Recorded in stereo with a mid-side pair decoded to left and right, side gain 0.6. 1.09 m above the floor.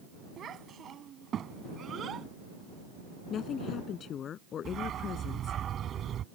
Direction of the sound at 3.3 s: 50° left.